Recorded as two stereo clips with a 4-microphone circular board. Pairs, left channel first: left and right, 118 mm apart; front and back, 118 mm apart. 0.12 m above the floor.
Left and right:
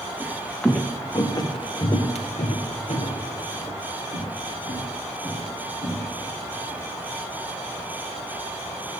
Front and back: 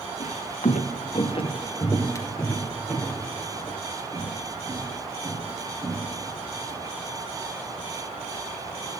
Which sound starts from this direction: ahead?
Footsteps, at 0.2 s.